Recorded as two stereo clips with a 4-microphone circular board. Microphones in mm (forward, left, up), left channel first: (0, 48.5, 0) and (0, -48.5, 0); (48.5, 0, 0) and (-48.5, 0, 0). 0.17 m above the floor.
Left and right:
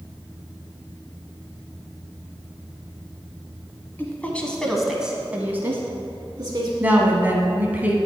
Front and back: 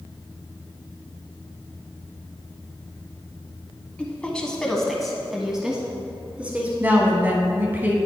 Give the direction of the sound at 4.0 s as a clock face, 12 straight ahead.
10 o'clock.